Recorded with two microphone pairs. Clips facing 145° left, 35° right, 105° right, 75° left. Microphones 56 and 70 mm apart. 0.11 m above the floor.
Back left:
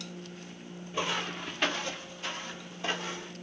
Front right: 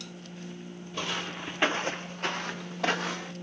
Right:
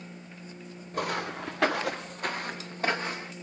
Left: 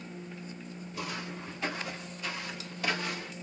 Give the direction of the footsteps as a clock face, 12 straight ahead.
5 o'clock.